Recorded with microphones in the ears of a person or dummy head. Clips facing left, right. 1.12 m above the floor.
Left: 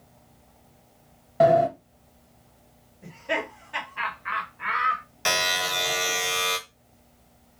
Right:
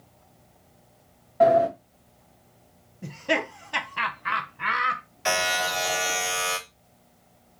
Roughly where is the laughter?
Right.